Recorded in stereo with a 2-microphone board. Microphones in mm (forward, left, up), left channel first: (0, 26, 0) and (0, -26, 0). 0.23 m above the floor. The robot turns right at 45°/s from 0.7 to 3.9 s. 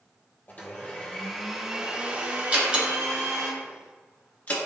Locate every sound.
0.5 s a blender: 145° left, 2.5 m; by 3.5 s 90° right, 2.5 m
2.5 s a door slam: 30° right (ahead or behind), 2.5 m; by 4.6 s 30° left (ahead or behind), 2.5 m